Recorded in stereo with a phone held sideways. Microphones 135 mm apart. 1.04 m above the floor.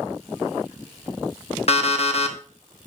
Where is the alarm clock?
50° left (ahead or behind), 0.9 m.